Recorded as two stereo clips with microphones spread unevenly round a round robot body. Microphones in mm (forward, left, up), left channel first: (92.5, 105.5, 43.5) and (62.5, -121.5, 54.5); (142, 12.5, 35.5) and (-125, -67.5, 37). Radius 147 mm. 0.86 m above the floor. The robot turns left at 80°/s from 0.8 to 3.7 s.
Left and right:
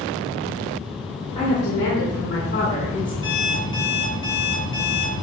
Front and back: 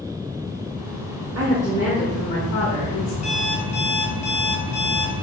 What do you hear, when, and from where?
1.4 s a woman speaking: 155° left, 2.0 m; by 3.1 s 10° left, 2.0 m
3.2 s an alarm clock: 50° left, 2.5 m; by 5.1 s 10° left, 2.5 m